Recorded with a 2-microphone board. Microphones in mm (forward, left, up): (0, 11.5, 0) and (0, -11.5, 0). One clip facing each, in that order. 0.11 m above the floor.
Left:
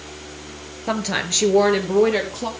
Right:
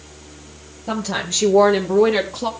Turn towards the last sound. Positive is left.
turn(degrees=-10)  # may be behind; listen again after turning